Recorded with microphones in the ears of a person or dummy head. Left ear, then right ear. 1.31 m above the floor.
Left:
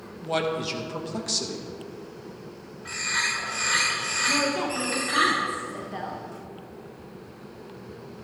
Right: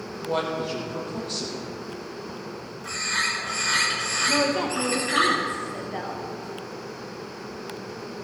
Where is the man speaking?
70° left (ahead or behind), 1.9 m.